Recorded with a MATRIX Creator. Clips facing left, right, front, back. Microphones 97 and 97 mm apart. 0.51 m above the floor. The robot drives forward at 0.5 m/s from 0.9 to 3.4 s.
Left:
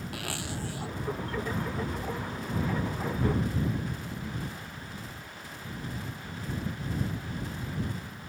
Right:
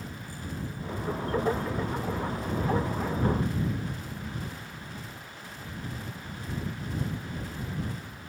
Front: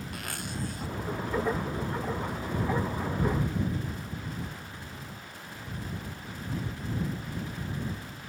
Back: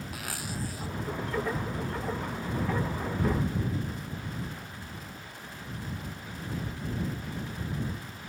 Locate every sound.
0.1 s a zipper: 90° left